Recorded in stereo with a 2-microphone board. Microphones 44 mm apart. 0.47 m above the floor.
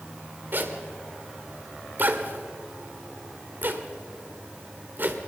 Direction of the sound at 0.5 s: 45° right (ahead or behind).